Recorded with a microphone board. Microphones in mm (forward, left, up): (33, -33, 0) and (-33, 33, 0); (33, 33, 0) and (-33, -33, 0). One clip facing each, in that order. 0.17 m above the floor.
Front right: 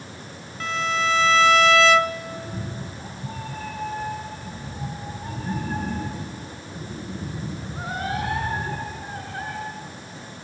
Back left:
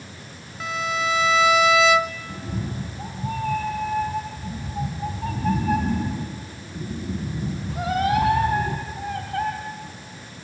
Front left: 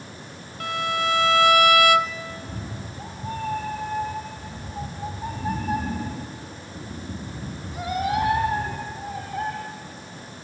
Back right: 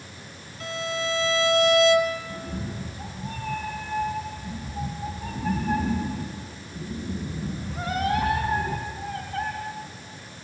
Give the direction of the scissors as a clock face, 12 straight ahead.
I don't hear scissors.